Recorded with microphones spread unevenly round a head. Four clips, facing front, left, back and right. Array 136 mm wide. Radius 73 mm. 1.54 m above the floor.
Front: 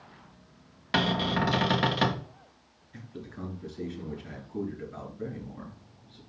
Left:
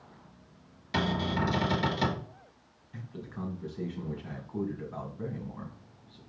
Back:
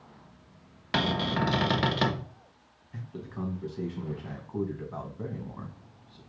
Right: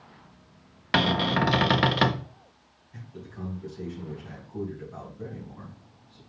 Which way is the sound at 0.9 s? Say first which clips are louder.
Right 6 dB, front 1 dB; 95° right.